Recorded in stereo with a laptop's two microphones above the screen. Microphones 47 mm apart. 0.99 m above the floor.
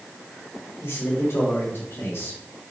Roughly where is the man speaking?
Left.